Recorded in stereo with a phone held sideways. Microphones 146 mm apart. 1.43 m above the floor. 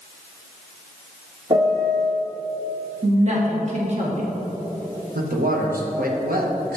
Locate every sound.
1.5 s a piano: 35° right (ahead or behind), 0.8 m
3.0 s a woman speaking: 50° right (ahead or behind), 1.7 m
5.2 s a man speaking: 80° right, 1.1 m